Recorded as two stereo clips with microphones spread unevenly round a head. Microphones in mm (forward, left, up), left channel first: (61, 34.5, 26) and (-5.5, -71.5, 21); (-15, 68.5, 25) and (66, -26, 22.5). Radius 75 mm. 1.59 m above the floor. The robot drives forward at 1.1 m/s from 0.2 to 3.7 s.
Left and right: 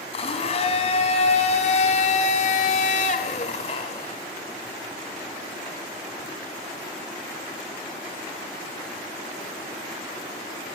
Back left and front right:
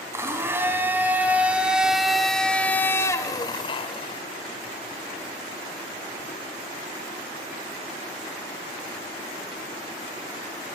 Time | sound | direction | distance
0.1 | a blender | 20° left | 4 m